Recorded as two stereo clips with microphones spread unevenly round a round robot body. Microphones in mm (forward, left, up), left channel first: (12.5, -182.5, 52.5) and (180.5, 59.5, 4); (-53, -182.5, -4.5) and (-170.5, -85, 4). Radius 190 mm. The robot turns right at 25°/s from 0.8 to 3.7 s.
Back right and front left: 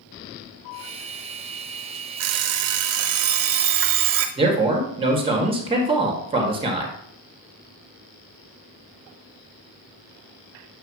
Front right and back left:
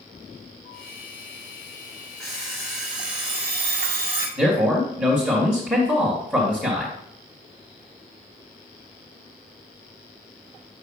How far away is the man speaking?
About 1.5 m.